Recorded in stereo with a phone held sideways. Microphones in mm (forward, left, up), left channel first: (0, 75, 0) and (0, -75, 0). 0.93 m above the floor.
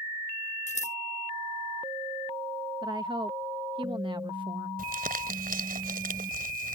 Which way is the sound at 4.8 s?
80° right.